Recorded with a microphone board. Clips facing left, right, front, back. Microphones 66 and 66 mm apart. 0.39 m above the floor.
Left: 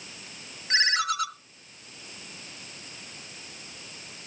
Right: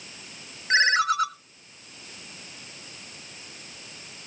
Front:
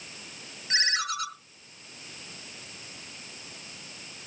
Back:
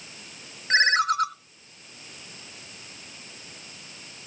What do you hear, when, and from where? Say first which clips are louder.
0.7 s a ringtone: right 5 dB, back 9 dB; 140° right, 1.3 m